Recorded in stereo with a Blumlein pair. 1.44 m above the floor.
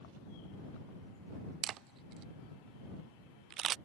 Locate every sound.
1.6 s a camera shutter: 30° right